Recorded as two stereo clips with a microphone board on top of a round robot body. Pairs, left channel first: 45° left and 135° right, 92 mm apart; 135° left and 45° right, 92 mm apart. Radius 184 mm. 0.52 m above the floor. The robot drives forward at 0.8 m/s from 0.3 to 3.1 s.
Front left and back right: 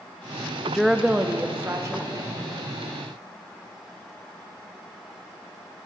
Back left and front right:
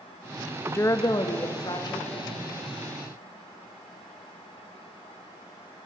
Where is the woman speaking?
115° left, 0.6 m; by 2.6 s 175° left, 1.7 m.